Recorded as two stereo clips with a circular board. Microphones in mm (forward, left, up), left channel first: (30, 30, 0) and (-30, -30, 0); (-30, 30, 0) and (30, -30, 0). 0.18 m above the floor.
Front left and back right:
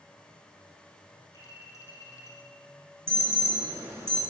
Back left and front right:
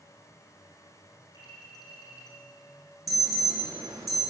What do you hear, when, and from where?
1.3 s a clink: 95° left, 4.5 m
3.1 s an alarm: 80° right, 3 m